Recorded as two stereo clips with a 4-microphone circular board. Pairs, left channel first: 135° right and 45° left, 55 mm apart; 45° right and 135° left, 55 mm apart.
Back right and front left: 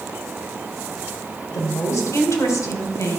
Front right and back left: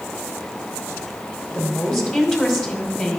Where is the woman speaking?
135° right, 2.5 m.